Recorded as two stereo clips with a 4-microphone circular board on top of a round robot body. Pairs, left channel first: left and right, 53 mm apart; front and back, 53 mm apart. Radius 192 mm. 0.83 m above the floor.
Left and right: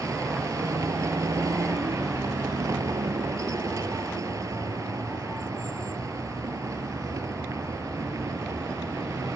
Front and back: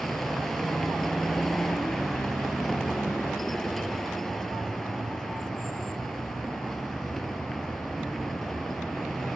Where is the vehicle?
85° right.